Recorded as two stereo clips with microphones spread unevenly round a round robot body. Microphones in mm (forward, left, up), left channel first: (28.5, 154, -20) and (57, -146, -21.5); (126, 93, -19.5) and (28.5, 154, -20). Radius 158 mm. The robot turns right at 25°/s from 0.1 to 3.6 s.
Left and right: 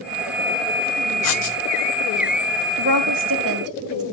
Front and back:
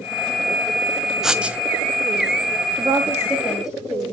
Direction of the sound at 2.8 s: 145° right.